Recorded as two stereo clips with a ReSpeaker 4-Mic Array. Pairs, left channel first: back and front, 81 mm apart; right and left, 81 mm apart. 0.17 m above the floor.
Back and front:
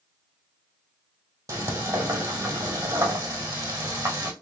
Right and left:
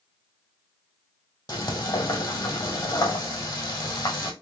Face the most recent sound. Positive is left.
turn(degrees=-50)